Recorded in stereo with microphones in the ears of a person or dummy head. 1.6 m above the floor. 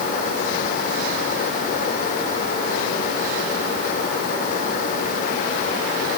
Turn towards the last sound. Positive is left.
No sound to turn to.